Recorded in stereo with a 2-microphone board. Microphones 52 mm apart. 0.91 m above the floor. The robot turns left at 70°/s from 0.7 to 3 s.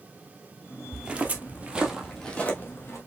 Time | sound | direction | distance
0.9 | footsteps | 5° right (ahead or behind) | 0.9 m